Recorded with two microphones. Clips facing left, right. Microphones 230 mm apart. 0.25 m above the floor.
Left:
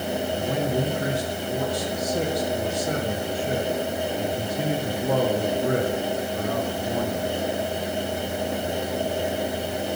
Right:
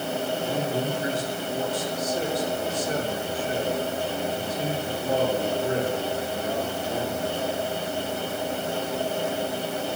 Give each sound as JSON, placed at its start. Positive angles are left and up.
{"t": 0.4, "sound": "a man speaking", "side_deg": 65, "distance_m": 4.0}